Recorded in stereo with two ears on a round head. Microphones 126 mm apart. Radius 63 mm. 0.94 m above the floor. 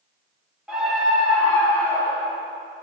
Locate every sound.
0.7 s a scream: 5° right (ahead or behind), 1.9 m; by 2.4 s 35° left (ahead or behind), 1.1 m